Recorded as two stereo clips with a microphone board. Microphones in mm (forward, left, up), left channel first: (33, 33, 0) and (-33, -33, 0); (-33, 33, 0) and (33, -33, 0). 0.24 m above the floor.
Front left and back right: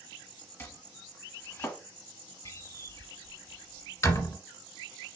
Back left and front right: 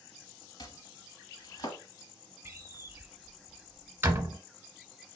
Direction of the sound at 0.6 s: 110° left.